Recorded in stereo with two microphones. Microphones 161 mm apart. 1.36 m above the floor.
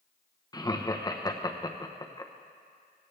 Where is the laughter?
25° left (ahead or behind), 0.9 m.